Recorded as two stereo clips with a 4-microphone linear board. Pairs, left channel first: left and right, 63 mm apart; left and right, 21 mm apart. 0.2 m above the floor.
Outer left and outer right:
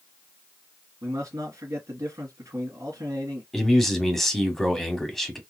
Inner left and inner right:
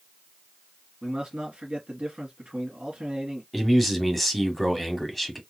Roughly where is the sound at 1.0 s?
Right.